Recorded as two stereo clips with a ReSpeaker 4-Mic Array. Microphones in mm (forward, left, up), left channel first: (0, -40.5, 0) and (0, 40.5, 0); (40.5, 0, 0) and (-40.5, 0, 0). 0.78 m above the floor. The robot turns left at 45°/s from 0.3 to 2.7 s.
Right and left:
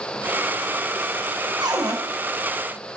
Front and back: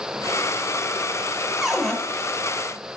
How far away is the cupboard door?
About 1.0 m.